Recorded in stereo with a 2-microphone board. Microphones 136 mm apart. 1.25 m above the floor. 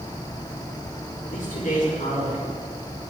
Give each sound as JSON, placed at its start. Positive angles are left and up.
{"t": 1.2, "sound": "a man speaking", "side_deg": 80, "distance_m": 3.5}